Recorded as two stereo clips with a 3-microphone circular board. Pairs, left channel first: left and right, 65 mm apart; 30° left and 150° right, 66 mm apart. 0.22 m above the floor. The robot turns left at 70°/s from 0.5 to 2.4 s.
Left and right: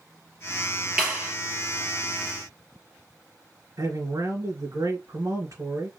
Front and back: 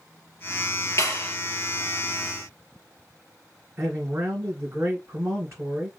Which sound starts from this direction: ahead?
A clap, at 1.0 s.